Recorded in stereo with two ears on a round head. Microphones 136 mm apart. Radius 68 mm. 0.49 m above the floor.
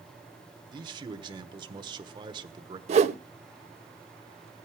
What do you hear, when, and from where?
0.7 s a man speaking: 30° right (ahead or behind), 1.2 m
2.9 s a whoosh: 45° right (ahead or behind), 0.6 m